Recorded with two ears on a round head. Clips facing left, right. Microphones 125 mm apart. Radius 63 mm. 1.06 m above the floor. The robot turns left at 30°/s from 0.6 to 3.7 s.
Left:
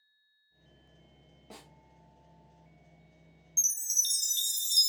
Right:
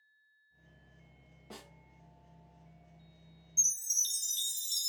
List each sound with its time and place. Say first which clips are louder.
1.5 s a snare drum: right 1 dB; 20° left (ahead or behind), 1.3 m; by 1.7 s 25° left (ahead or behind), 1.3 m
3.6 s a chime: left 4 dB; 55° left (ahead or behind), 0.7 m; by 4.9 s 60° left (ahead or behind), 0.7 m